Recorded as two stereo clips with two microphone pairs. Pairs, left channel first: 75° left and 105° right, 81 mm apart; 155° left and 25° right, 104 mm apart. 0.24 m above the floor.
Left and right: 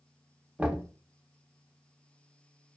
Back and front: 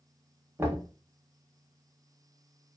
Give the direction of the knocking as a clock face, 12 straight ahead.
2 o'clock.